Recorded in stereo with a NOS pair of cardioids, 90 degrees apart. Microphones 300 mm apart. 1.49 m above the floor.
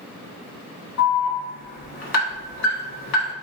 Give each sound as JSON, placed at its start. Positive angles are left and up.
{"t": 1.0, "sound": "an alarm", "azimuth_deg": 65, "distance_m": 1.4}